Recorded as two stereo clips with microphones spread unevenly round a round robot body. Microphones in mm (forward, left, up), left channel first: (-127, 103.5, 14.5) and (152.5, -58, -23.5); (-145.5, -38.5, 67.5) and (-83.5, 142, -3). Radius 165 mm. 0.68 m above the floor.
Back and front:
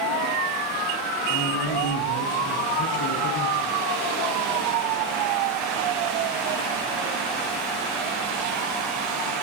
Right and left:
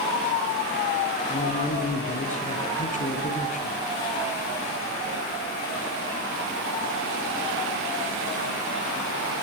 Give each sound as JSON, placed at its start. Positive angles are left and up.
{"t": 1.3, "sound": "a man speaking", "azimuth_deg": -160, "distance_m": 7.0}